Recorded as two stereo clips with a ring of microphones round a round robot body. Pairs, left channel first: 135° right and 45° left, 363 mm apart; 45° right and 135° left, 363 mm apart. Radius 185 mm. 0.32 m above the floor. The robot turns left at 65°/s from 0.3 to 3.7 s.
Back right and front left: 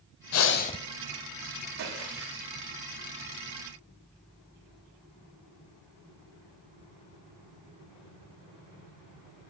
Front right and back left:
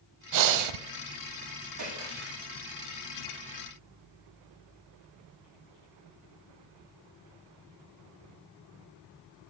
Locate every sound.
0.3 s breathing: 175° left, 0.7 m; by 0.8 s 145° left, 0.7 m
1.8 s a splash: 105° left, 6 m; by 2.5 s 60° left, 6 m